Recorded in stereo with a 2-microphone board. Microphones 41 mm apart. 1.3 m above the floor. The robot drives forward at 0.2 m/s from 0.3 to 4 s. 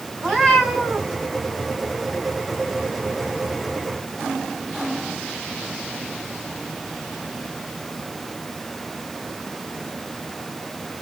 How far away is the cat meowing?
About 2 m.